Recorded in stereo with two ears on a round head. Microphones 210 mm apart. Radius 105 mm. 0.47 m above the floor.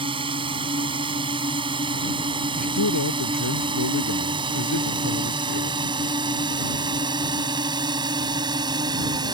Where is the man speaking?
75° left (ahead or behind).